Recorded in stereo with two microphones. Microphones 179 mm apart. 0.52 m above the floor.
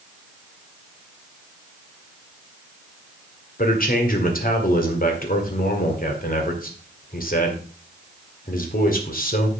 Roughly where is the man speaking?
Left.